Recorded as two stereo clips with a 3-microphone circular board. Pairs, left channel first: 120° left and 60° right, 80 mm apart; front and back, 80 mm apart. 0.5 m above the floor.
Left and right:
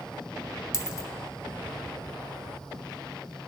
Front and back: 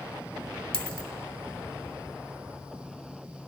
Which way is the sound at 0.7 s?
75° left.